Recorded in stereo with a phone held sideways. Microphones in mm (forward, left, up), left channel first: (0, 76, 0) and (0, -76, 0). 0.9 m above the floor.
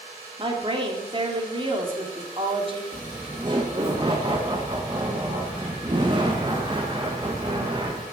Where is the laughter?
30° right (ahead or behind), 1.1 m.